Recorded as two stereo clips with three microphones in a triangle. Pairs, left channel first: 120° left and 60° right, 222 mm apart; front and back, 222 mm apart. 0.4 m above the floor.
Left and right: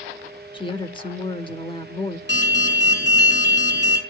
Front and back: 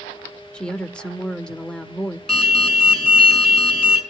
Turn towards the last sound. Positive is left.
turn(degrees=85)